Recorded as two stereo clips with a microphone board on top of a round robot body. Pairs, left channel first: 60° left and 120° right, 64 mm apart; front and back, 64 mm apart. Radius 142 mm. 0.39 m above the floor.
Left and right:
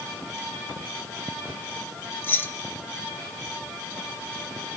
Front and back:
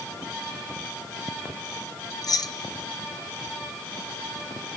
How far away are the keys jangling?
About 1.5 m.